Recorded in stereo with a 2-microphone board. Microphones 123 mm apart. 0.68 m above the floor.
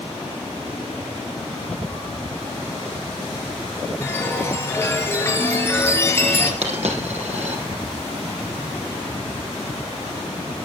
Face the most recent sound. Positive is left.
turn(degrees=-70)  # may be behind; listen again after turning